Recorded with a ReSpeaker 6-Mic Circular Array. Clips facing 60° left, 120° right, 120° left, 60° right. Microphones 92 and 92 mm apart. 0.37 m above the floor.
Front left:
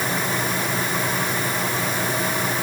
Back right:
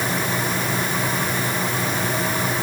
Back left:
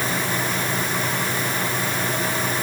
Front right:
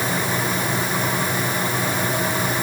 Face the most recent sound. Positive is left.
No sound to turn to.